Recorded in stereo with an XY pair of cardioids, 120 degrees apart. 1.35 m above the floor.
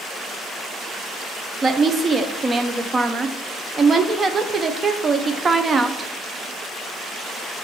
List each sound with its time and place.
1.6 s a woman speaking: 30° right, 0.7 m